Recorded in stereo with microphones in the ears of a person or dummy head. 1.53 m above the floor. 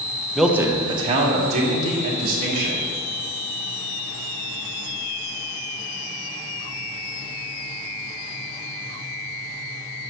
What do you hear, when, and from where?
0.3 s a man speaking: 5° left (ahead or behind), 0.8 m; by 2.8 s 50° right (ahead or behind), 3.5 m